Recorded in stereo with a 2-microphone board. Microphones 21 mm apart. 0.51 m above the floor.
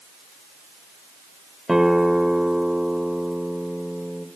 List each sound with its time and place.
1.7 s a guitar: 30° right (ahead or behind), 1.6 m